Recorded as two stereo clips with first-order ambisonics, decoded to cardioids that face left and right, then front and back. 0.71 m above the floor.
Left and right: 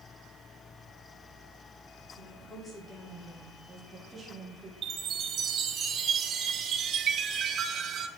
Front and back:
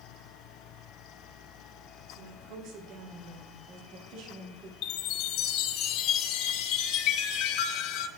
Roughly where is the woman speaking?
Behind left.